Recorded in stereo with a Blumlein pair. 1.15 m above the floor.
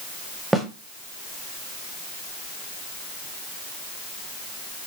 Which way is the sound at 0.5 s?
5° right.